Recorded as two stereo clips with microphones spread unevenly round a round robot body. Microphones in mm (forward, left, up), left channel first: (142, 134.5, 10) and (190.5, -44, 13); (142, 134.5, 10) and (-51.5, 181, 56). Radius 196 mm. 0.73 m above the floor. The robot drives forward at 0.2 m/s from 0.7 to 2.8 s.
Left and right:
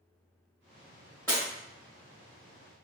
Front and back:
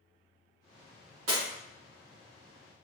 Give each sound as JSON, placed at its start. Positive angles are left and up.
{"t": 1.3, "sound": "breaking glass", "azimuth_deg": -170, "distance_m": 1.1}